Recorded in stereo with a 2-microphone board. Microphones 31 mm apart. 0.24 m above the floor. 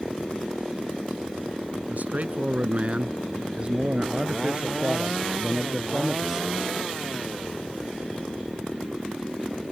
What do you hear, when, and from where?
1.9 s a man speaking: 55° right (ahead or behind); by 6.8 s 15° right (ahead or behind)